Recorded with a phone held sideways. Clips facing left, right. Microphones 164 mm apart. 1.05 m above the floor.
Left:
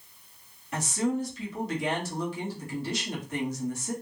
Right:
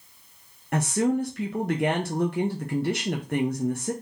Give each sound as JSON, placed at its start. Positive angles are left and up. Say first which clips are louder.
{"t": 0.7, "sound": "a woman speaking", "louder": "right 5 dB", "side_deg": -60, "distance_m": 0.8}